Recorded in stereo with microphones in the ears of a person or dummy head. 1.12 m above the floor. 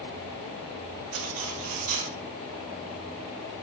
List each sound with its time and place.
1.1 s cutlery clinking: 45° right (ahead or behind), 0.7 m